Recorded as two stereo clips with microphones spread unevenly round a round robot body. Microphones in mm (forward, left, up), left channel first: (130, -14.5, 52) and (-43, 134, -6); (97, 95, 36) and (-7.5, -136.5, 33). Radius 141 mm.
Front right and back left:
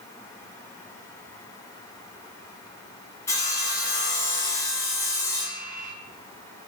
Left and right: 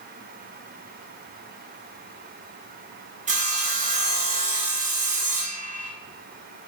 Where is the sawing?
135° right, 0.7 m.